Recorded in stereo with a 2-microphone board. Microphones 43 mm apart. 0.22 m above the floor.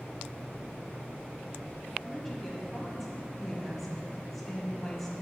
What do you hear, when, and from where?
2.0 s a woman speaking: 5° left (ahead or behind), 1.0 m